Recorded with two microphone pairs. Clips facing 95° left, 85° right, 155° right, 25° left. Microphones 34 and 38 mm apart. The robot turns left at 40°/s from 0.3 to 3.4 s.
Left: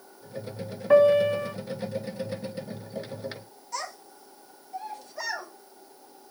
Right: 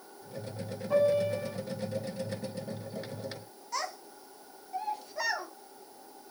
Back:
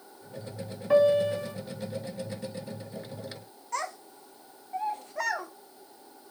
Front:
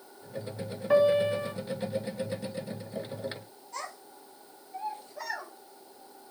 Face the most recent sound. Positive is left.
turn(degrees=-160)